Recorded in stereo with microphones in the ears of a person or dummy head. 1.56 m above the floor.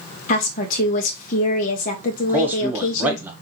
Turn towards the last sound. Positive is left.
turn(degrees=-15)  # may be behind; listen again after turning